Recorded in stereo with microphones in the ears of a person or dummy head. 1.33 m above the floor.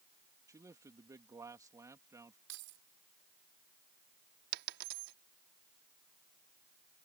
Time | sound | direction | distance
0.5 | a man speaking | 10° right (ahead or behind) | ?
2.5 | keys jangling | 65° right (ahead or behind) | ?
4.5 | a dropped coin | 60° right (ahead or behind) | ?